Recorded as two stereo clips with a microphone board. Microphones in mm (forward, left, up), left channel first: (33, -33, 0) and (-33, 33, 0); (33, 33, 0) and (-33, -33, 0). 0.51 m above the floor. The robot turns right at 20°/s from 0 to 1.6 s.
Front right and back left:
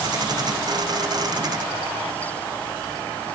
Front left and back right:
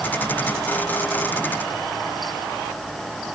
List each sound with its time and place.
Only background noise.